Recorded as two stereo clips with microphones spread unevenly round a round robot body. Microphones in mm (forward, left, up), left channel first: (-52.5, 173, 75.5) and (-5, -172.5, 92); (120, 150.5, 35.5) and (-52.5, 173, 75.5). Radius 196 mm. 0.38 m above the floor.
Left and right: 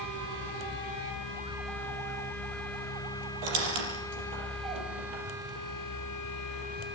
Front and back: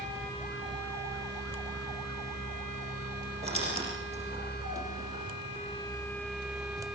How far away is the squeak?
About 6 m.